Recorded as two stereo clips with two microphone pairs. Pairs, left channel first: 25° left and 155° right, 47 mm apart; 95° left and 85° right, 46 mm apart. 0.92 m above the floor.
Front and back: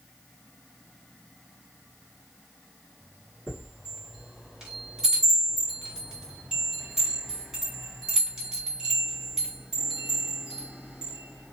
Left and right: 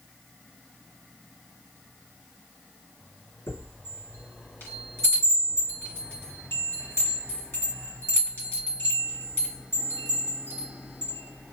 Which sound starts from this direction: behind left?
A chime, at 3.5 s.